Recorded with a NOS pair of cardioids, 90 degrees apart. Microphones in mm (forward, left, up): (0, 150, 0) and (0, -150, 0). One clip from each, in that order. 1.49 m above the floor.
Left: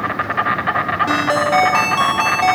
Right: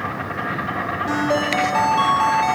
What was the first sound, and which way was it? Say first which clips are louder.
An insect: left 7 dB; 60° left.